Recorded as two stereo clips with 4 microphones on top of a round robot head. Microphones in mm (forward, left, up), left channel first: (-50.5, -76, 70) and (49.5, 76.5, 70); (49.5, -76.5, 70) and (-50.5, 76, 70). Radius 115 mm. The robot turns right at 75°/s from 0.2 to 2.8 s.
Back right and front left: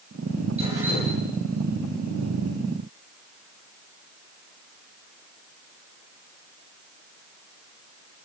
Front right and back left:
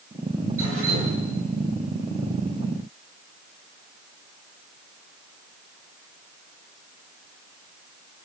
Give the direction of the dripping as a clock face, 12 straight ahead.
8 o'clock.